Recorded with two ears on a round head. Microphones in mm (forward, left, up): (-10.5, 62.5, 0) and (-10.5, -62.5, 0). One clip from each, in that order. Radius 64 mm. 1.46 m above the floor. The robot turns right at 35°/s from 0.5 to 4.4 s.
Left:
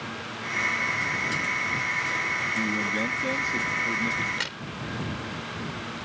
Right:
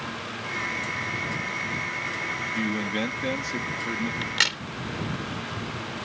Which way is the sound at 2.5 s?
50° right.